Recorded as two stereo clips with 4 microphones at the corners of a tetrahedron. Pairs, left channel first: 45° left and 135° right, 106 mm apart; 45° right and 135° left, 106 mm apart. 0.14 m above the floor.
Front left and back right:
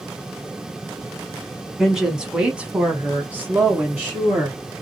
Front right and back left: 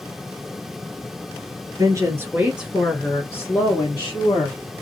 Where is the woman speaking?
140° left, 1.3 m; by 4.6 s 65° right, 1.9 m.